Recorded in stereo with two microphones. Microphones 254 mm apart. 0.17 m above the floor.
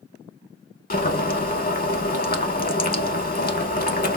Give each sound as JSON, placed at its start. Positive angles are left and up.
{"t": 0.9, "sound": "boiling", "side_deg": 35, "distance_m": 0.6}